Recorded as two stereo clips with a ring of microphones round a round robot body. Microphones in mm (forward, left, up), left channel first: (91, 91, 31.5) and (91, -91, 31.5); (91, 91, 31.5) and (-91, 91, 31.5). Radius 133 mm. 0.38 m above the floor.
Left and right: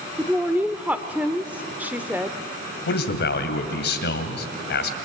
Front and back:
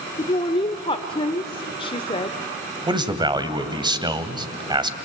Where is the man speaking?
115° left, 2 m.